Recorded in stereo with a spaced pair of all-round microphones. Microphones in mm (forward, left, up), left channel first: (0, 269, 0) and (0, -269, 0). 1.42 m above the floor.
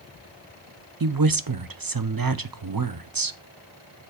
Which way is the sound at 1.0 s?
40° right (ahead or behind).